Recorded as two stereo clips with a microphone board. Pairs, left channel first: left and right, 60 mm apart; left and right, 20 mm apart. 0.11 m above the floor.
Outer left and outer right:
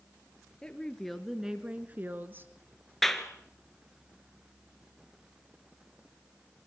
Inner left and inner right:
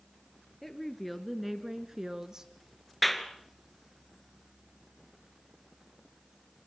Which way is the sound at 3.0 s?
5° left (ahead or behind).